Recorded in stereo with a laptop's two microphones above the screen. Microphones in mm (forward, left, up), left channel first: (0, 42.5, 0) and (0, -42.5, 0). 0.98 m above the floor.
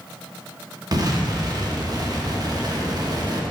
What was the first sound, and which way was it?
An explosion, 45° right (ahead or behind).